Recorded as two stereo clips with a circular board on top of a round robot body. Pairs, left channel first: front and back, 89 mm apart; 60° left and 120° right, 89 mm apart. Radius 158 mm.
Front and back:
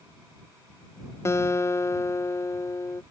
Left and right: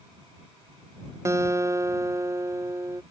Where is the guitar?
60° right.